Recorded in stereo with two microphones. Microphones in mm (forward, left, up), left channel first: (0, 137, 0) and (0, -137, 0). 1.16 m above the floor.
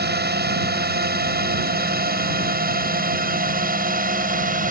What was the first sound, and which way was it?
A drone, 35° right (ahead or behind).